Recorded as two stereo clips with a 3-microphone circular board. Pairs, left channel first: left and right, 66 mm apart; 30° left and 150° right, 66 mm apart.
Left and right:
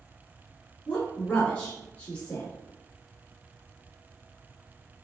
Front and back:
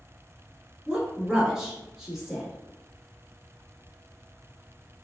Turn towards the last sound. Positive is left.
turn(degrees=145)